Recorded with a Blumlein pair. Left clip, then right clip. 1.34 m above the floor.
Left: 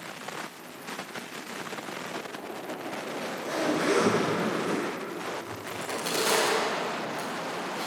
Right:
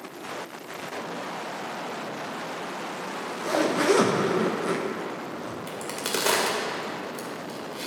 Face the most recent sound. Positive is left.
turn(degrees=-20)